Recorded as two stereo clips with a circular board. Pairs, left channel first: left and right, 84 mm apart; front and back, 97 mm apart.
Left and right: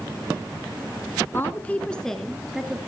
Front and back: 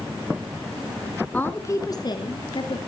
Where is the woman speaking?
60° left, 1.1 m; by 2.8 s 5° right, 2.0 m.